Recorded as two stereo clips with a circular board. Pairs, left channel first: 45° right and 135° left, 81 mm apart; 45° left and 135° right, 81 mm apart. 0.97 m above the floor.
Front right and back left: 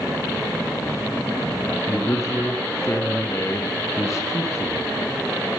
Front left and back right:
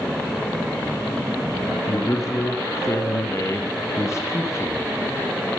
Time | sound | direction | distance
1.9 | a man speaking | straight ahead | 1.1 m